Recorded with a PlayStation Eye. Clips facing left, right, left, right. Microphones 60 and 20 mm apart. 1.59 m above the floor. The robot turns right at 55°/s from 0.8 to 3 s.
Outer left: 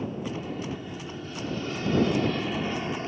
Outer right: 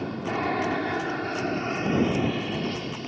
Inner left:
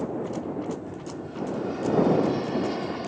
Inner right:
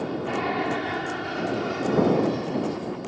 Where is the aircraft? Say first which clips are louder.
Outer right 5 dB, inner right 3 dB; 90° right; by 3.1 s 30° left.